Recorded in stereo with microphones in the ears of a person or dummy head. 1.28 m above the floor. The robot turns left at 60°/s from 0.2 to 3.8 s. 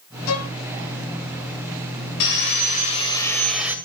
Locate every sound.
0.3 s a violin: 65° left (ahead or behind), 1.0 m; by 0.5 s 70° left (ahead or behind), 1.0 m
2.2 s sawing: 80° left, 2 m; by 3.8 s 10° right, 2 m